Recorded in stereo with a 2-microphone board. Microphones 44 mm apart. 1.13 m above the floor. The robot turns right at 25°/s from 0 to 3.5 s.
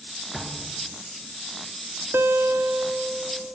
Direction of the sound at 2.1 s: 60° right.